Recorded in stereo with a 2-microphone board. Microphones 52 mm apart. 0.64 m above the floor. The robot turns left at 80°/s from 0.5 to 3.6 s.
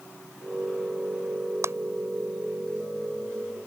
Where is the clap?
65° right (ahead or behind); by 1.7 s 60° right (ahead or behind).